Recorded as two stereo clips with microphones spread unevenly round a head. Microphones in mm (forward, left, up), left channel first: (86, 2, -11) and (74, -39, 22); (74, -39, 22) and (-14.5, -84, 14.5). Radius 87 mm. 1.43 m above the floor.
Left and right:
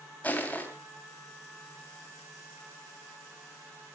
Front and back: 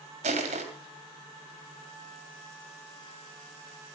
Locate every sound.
0.2 s crushing: 165° left, 3 m